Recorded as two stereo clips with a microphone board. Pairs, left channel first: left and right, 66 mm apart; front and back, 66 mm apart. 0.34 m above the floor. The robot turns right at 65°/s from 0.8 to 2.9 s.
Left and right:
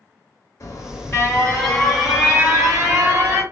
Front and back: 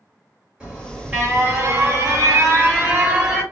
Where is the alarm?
110° left, 1.9 m; by 3.4 s 115° right, 1.9 m.